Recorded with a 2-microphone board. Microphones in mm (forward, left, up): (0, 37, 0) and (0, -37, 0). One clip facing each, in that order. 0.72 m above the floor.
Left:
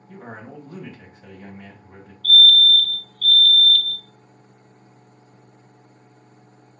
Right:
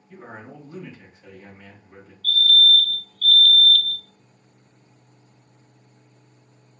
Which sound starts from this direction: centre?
A fire alarm, at 2.2 s.